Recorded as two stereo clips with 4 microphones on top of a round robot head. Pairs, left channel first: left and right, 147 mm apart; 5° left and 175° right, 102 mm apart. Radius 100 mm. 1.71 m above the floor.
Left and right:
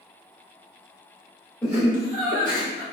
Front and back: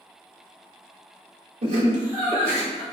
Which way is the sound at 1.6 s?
175° left.